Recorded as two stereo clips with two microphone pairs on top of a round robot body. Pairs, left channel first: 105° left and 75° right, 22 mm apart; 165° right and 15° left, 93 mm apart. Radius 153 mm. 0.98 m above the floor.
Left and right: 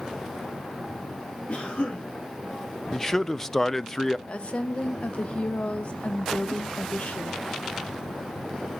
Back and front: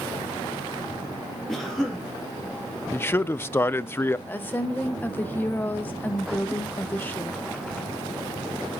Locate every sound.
1.5 s a cough: 110° left, 2 m
2.9 s a man speaking: 175° left, 0.5 m
4.3 s a woman speaking: 130° left, 1.2 m